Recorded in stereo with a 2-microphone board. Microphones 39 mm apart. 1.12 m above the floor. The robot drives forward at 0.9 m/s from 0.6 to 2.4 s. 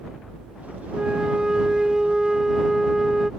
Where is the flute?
25° right (ahead or behind); by 3.3 s 10° right (ahead or behind).